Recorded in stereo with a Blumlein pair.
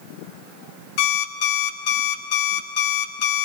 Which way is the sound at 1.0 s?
45° left.